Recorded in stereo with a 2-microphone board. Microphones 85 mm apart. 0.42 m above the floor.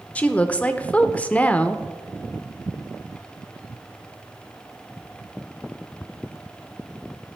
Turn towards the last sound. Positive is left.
turn(degrees=15)  # may be behind; listen again after turning